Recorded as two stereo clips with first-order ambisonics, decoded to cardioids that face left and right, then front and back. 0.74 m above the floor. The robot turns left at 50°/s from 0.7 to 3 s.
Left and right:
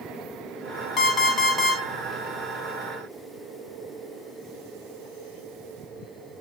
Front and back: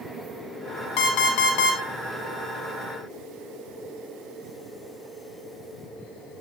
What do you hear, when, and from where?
1.0 s an alarm clock: 30° left, 0.5 m; by 1.8 s 10° right, 0.5 m